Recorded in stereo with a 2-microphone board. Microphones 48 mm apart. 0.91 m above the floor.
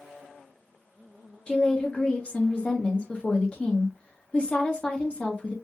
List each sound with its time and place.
1.5 s a woman speaking: 25° left (ahead or behind), 0.9 m